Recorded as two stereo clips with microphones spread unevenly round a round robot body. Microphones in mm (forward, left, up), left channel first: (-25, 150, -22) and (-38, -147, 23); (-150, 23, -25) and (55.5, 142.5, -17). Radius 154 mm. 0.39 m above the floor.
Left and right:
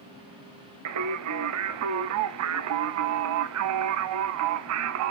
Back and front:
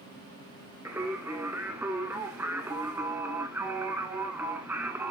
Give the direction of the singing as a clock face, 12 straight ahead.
2 o'clock.